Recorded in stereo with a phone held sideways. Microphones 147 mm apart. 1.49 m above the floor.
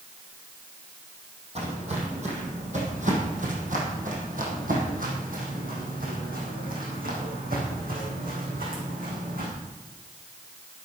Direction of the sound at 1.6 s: 45° right (ahead or behind).